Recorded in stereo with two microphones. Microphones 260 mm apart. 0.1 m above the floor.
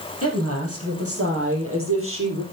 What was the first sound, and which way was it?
A woman speaking, 65° right (ahead or behind).